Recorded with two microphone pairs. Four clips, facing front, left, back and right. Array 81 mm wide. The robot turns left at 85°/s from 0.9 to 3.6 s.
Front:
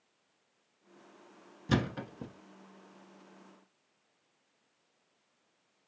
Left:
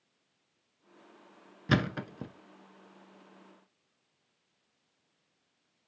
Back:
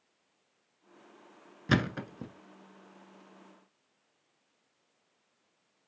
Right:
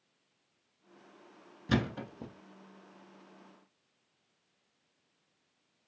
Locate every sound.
1.7 s a thud: 155° left, 0.8 m; by 2.3 s 100° left, 0.8 m